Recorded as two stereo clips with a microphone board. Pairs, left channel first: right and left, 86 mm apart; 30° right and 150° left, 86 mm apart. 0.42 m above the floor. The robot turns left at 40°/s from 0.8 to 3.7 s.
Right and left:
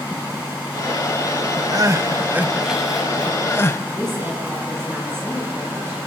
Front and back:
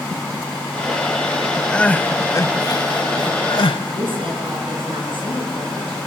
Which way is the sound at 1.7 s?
50° left.